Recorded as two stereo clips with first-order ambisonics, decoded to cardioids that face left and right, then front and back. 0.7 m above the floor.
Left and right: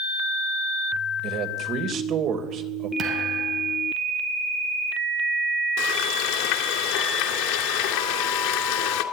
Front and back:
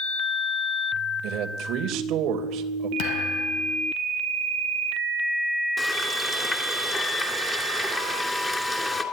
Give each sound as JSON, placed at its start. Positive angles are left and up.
{"t": 1.2, "sound": "a man speaking", "azimuth_deg": -135, "distance_m": 3.0}
{"t": 3.0, "sound": "a thud", "azimuth_deg": -30, "distance_m": 3.0}
{"t": 5.8, "sound": "frying", "azimuth_deg": 80, "distance_m": 2.5}